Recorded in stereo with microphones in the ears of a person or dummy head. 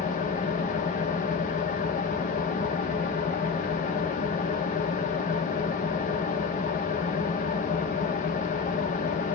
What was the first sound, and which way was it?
An engine running, 45° left (ahead or behind).